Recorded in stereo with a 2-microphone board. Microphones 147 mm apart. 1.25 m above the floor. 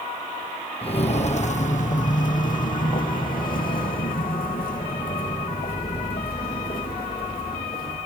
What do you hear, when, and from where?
0.8 s footsteps: 40° left (ahead or behind), 2.0 m; by 8.0 s 75° left (ahead or behind), 7 m